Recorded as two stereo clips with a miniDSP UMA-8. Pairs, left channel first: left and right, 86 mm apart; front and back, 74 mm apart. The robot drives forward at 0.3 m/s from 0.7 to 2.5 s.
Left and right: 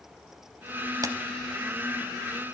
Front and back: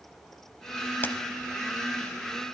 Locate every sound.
1.0 s a camera shutter: 55° right, 0.6 m; by 1.1 s 60° right, 0.6 m